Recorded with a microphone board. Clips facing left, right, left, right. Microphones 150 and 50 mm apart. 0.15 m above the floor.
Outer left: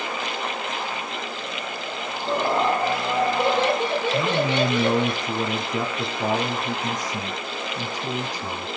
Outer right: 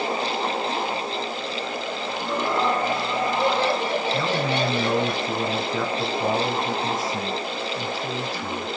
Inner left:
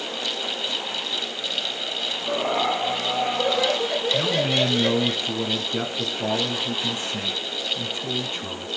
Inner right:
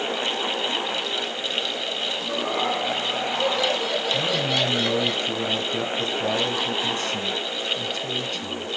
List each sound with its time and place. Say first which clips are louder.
2.2 s laughter: outer left 2 dB, inner left 3 dB; 50° left (ahead or behind), 4 m; by 5.1 s 25° left (ahead or behind), 3.5 m
4.1 s a man speaking: outer left 2 dB, inner left 2 dB; 20° left (ahead or behind), 1.4 m